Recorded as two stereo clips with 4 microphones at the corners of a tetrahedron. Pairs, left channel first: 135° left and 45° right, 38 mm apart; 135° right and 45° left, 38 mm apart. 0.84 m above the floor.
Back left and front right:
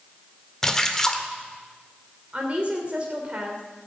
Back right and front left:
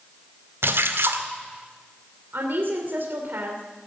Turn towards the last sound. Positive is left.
turn(degrees=10)